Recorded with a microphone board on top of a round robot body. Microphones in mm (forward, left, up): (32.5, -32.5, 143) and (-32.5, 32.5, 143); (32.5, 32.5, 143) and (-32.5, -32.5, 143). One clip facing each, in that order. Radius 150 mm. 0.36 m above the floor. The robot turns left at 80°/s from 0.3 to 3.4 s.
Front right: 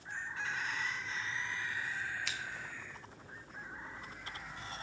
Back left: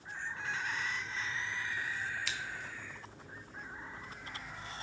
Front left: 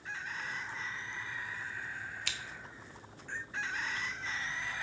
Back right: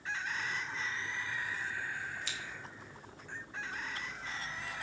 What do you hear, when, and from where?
2.3 s scissors: 45° left, 1.2 m; by 2.4 s 35° left, 1.2 m